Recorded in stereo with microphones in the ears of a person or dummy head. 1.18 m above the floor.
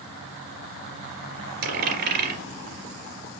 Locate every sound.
1.6 s a dropped coin: 60° right (ahead or behind), 3 m